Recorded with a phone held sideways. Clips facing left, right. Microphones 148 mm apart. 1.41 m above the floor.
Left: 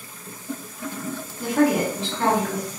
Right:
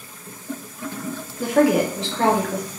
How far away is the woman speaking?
About 1.0 m.